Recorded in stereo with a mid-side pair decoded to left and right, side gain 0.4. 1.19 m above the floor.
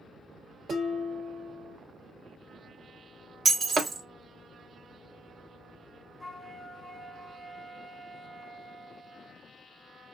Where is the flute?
5° left, 1.0 m.